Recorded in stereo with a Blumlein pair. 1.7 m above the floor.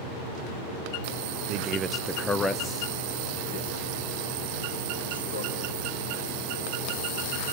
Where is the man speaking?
40° right, 1.0 m; by 5.7 s 55° left, 4.5 m.